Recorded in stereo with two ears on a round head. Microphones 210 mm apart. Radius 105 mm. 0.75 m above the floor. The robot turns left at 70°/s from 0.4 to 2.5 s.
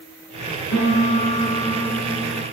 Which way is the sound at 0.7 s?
70° left.